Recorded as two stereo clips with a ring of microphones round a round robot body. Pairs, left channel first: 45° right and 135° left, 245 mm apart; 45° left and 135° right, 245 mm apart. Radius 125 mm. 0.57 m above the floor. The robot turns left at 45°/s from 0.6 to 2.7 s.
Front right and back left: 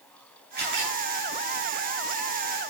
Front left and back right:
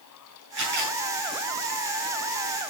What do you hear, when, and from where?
0.6 s a camera shutter: 175° right, 9 m; by 1.0 s 170° left, 9 m